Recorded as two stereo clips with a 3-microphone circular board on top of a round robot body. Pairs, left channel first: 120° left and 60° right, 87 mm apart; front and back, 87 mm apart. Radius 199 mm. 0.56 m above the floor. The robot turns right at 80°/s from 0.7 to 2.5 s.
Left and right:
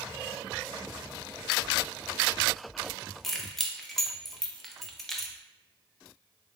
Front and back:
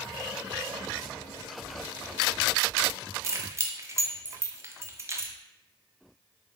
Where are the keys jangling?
155° right, 0.7 m.